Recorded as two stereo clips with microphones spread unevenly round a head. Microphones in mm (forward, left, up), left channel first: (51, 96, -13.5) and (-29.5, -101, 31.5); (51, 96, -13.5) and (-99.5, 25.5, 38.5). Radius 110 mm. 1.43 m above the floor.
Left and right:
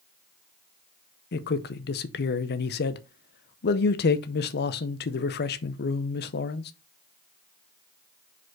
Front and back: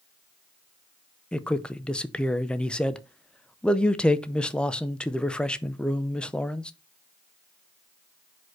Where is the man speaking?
120° left, 0.6 m.